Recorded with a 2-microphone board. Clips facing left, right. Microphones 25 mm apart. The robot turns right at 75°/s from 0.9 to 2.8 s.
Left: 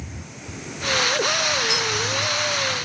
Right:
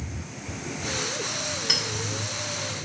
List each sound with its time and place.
1.7 s a clink: 50° right (ahead or behind), 1.3 m; by 1.8 s 40° right (ahead or behind), 1.3 m